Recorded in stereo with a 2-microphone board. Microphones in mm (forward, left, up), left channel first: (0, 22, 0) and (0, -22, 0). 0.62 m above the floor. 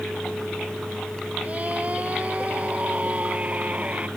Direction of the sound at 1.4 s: 35° right (ahead or behind).